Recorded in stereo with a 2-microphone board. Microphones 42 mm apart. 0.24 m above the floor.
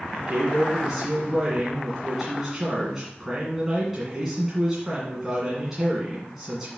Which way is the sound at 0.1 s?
5° right (ahead or behind).